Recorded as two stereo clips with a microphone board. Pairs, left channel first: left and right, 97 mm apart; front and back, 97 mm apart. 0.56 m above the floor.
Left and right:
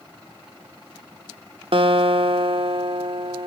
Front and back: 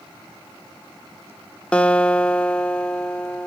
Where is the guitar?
75° right, 1.0 m.